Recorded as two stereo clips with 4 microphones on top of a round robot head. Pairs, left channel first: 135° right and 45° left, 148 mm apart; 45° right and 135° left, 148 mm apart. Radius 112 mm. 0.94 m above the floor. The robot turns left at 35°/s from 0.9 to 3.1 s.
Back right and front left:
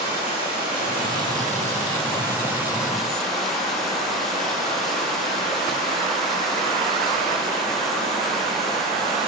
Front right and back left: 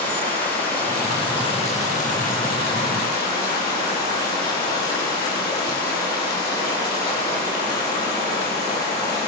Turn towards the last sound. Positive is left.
turn(degrees=-50)